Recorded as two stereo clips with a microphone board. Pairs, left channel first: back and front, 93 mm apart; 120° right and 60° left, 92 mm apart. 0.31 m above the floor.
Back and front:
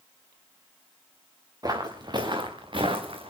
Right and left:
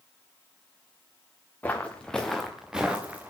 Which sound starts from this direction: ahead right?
Footsteps, at 1.6 s.